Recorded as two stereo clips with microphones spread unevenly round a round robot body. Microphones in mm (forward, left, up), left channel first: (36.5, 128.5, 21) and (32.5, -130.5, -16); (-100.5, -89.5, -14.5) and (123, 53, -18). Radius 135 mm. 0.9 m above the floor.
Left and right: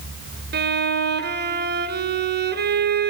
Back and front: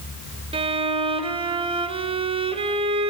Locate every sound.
0.5 s a violin: 35° right, 1.8 m